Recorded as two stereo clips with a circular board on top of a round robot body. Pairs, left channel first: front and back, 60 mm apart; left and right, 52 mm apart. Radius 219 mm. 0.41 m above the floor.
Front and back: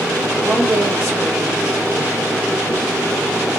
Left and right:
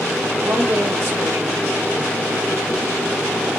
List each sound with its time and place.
0.4 s a woman speaking: 120° right, 2 m